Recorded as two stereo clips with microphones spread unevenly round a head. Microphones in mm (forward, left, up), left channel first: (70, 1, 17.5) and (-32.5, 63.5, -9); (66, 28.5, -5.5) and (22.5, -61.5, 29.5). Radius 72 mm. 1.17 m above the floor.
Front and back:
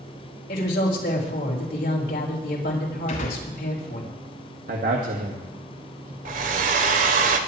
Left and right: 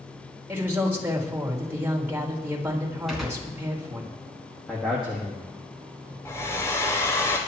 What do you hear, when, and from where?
0.5 s a woman speaking: 45° right, 4 m
3.1 s a gunshot: 30° right, 3.5 m
4.7 s a man speaking: 150° left, 1.7 m
6.2 s a hair dryer: 150° left, 1.2 m